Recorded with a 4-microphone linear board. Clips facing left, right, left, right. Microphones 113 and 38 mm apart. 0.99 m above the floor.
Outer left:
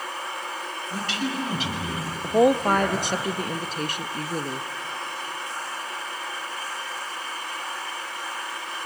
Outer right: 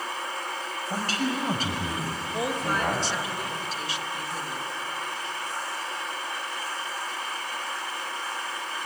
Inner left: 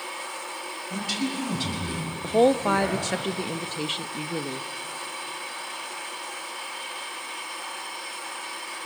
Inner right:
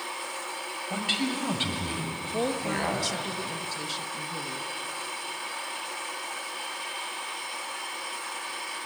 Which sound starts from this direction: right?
A man speaking, at 0.9 s.